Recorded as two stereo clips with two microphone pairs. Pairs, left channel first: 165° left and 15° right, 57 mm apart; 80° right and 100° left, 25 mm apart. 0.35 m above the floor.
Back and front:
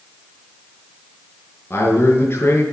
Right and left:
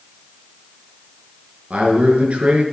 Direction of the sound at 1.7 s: 125° left.